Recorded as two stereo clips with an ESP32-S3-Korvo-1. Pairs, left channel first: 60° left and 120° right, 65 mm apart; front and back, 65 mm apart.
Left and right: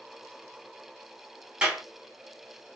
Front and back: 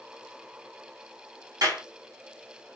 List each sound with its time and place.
1.6 s a clap: 165° left, 1.6 m